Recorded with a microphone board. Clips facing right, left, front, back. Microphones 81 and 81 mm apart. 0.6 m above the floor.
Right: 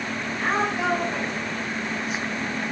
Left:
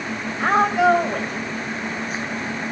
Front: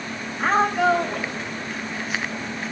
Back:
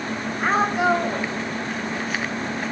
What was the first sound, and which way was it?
A woman speaking, 95° left.